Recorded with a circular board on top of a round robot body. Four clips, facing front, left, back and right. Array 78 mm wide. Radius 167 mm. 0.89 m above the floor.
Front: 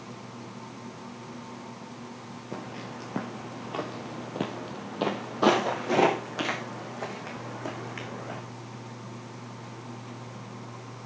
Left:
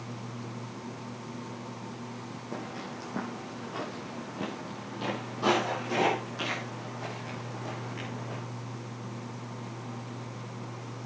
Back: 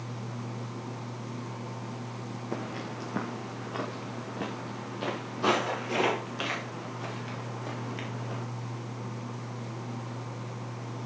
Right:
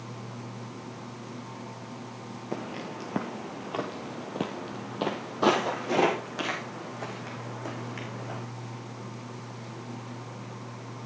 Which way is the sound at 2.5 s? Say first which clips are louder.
Right 4 dB, back 2 dB; 110° right.